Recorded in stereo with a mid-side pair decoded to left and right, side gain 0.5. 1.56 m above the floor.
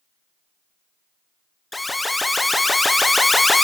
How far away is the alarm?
About 1.0 m.